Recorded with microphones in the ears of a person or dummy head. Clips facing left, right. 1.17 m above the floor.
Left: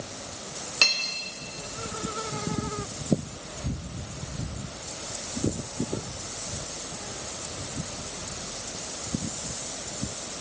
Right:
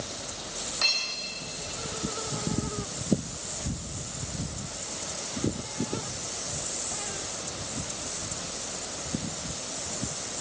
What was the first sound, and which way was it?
Cutlery clinking, 50° left (ahead or behind).